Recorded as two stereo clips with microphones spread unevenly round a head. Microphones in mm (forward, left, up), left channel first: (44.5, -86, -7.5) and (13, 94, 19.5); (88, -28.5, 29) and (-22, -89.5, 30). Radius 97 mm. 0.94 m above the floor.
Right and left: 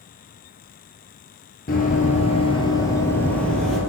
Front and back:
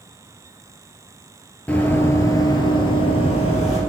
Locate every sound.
1.7 s running footsteps: 50° right, 1.3 m; by 3.8 s 15° left, 1.7 m